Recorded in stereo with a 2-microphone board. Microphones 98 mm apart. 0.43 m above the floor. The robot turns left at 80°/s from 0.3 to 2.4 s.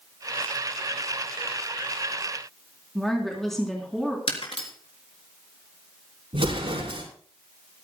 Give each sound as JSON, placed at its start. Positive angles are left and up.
{"t": 3.0, "sound": "a woman speaking", "side_deg": 5, "distance_m": 3.5}
{"t": 4.3, "sound": "breaking glass", "side_deg": 85, "distance_m": 4.0}
{"t": 6.3, "sound": "an explosion", "side_deg": -75, "distance_m": 5.0}